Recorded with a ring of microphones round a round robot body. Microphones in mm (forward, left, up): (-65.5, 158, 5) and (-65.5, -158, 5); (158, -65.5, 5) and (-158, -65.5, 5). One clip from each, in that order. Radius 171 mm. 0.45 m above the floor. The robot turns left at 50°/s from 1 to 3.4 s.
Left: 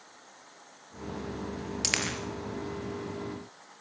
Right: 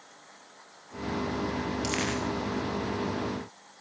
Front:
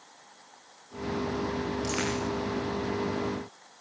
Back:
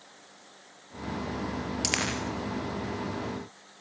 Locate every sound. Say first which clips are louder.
1.8 s a dropped coin: left 3 dB, back 4 dB; 130° left, 5.5 m; by 2.1 s 115° left, 5.5 m